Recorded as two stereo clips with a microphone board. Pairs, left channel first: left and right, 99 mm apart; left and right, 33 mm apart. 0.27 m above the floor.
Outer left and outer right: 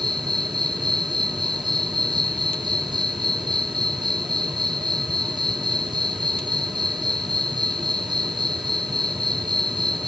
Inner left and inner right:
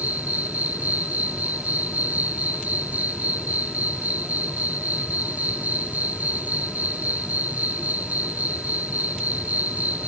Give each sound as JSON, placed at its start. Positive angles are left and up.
{"t": 0.0, "sound": "an insect", "side_deg": -50}